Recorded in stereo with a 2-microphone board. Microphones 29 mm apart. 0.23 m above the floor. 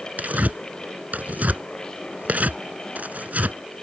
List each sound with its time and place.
0.2 s tearing paper: 70° right (ahead or behind)